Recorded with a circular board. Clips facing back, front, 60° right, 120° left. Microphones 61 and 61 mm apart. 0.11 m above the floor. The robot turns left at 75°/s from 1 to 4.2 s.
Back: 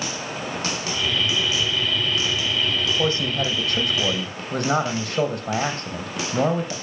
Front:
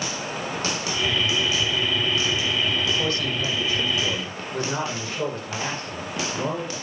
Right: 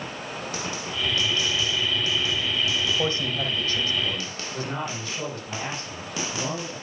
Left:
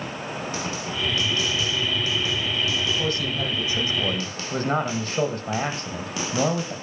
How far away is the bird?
I don't hear a bird.